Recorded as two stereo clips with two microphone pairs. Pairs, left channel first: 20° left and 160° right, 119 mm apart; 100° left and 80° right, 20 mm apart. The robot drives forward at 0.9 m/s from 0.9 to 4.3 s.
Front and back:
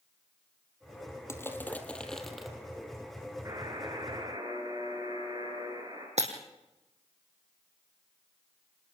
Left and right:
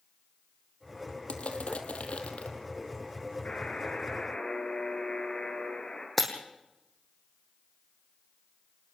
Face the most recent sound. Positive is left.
turn(degrees=-175)